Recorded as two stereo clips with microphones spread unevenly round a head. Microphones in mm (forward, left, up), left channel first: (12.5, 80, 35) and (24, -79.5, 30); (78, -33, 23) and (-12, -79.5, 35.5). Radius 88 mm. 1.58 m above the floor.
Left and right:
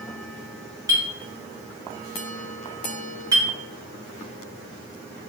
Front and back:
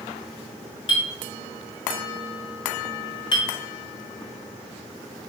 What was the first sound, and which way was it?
A clink, 15° right.